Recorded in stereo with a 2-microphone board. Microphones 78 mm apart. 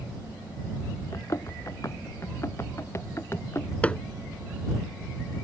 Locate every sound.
1.1 s running footsteps: 45° left (ahead or behind); by 3.7 s 35° left (ahead or behind)
3.8 s hammering: 15° left (ahead or behind)